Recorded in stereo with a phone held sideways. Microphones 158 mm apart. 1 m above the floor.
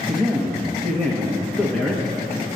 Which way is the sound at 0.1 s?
Centre (ahead or behind).